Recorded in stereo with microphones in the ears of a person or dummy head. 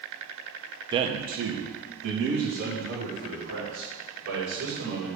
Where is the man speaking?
25° right (ahead or behind), 0.6 m; by 5.2 s 75° right (ahead or behind), 4.5 m.